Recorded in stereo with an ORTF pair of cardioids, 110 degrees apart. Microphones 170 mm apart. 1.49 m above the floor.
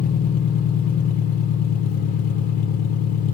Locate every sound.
0.0 s an engine running: 60° left, 0.8 m